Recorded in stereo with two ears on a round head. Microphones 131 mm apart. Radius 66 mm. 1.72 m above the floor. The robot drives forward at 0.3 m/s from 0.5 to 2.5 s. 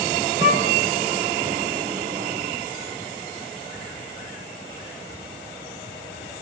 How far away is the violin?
About 5 m.